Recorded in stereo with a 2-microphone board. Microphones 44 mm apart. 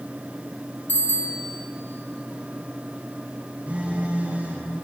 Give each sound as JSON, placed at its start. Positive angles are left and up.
{"t": 0.9, "sound": "a bicycle bell", "side_deg": 45, "distance_m": 7.0}
{"t": 3.7, "sound": "a phone buzzing", "side_deg": -35, "distance_m": 5.5}